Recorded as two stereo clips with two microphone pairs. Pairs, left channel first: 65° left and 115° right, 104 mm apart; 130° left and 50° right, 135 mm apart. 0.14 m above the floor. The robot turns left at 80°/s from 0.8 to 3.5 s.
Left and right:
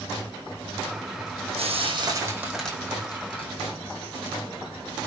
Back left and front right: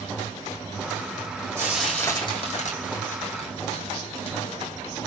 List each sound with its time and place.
1.6 s frying: 120° right, 5 m; by 4.4 s 85° left, 5 m